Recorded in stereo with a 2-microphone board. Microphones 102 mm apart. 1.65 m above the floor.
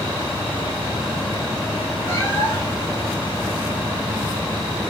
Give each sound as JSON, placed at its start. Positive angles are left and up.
{"t": 2.1, "sound": "a cat meowing", "side_deg": 25, "distance_m": 1.5}